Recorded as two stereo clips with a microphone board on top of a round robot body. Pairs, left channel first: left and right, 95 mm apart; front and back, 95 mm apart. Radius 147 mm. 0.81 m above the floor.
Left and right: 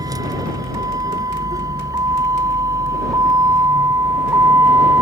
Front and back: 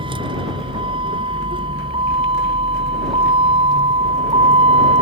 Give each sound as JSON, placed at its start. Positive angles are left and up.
{"t": 0.0, "sound": "a vehicle", "azimuth_deg": -145}